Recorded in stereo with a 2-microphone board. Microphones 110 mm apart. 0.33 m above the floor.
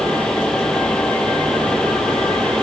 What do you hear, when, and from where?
Only background noise.